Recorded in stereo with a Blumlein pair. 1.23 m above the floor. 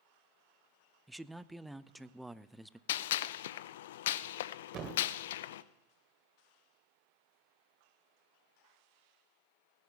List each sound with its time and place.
1.1 s a man speaking: 5° right, 0.5 m
2.9 s a gunshot: 55° left, 0.5 m
4.7 s a thud: 30° right, 2.5 m